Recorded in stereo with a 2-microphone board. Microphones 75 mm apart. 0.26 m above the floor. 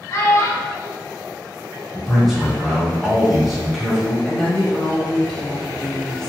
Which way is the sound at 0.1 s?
35° left (ahead or behind).